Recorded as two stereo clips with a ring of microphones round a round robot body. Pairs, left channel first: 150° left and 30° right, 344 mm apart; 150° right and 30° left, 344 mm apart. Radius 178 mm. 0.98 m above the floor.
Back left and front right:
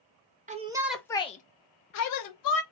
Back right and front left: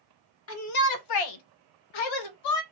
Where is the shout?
100° right, 0.7 m; by 2.6 s 175° right, 1.1 m.